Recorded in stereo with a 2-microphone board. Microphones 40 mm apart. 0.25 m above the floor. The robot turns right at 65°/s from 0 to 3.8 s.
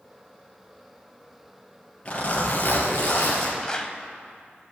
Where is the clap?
20° left (ahead or behind), 0.9 m; by 4.0 s 25° left (ahead or behind), 0.9 m.